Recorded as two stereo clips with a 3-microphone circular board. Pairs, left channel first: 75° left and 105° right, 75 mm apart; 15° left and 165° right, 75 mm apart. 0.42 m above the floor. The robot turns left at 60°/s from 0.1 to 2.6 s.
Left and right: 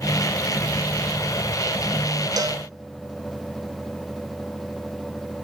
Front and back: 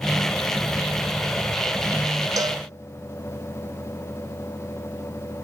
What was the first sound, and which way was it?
A cowbell, 130° right.